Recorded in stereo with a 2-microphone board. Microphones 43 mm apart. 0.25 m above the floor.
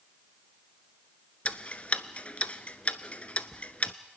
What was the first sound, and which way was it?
Ticking, 30° left (ahead or behind).